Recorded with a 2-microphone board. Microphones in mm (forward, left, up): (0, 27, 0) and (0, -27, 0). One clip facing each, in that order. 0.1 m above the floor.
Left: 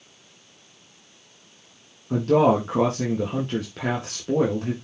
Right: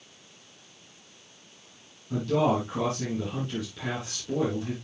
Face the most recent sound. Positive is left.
turn(degrees=55)  # may be behind; listen again after turning